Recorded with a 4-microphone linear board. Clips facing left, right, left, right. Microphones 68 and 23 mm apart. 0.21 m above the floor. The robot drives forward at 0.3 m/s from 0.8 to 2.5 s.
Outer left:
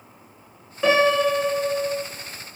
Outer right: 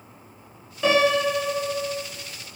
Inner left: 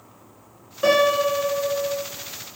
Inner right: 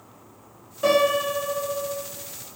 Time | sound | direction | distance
0.8 | a piano | 20° left (ahead or behind) | 1.0 m